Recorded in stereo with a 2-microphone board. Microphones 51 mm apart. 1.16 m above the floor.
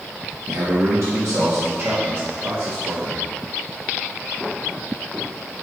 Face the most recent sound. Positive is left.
turn(degrees=-35)  # may be behind; listen again after turning